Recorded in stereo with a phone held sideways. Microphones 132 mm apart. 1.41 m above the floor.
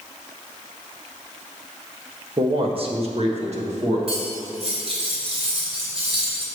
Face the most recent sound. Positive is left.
turn(degrees=-45)  # may be behind; listen again after turning